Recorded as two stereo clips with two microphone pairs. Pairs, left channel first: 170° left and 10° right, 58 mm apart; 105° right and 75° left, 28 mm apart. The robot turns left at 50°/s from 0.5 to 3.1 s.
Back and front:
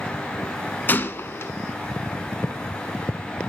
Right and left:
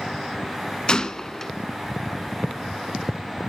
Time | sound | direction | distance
0.9 | a gunshot | 145° right | 0.5 m